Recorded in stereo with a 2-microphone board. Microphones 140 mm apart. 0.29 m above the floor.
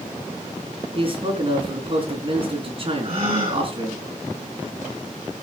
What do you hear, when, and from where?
0.9 s a man speaking: 40° right (ahead or behind), 3.5 m
3.0 s a gasp: 40° right (ahead or behind), 6.5 m